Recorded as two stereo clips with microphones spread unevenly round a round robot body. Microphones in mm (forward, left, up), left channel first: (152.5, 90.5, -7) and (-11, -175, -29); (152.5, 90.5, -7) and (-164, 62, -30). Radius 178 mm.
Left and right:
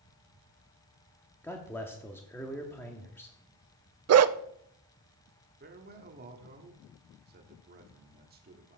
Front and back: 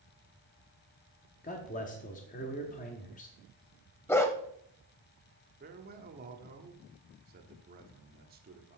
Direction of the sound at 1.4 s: 25° right.